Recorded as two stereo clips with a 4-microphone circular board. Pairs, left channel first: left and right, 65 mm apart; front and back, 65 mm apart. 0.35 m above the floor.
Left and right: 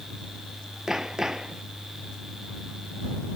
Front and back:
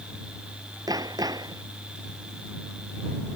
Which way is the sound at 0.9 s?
170° right.